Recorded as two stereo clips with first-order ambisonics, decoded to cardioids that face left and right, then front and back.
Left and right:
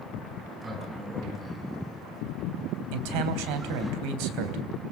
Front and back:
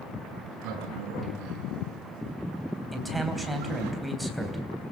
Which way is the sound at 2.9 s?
90° right.